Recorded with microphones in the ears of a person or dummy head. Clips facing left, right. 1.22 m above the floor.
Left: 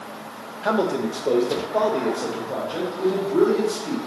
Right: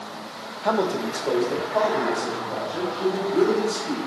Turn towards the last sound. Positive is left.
turn(degrees=50)  # may be behind; listen again after turning